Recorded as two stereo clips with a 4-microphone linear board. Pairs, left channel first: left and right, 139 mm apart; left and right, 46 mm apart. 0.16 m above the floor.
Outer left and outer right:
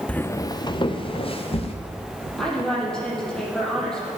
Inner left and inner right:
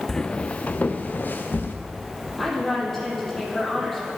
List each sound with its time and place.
0.1 s footsteps: 10° left (ahead or behind), 0.7 m; by 1.7 s 45° left (ahead or behind), 2.5 m
2.4 s a woman speaking: 5° left (ahead or behind), 6.5 m